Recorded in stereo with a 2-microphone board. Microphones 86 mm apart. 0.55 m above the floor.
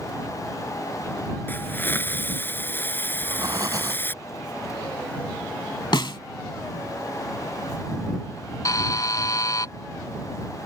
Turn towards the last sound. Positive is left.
turn(degrees=45)  # may be behind; listen again after turning